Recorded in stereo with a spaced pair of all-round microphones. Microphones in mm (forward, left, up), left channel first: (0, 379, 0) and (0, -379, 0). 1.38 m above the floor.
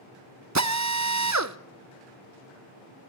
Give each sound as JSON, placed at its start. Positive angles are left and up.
{"t": 0.6, "sound": "a drill", "side_deg": -25, "distance_m": 0.8}